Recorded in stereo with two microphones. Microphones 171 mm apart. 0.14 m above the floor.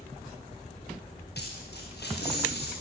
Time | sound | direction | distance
1.4 | a dropped coin | 75° left (ahead or behind) | 8.5 m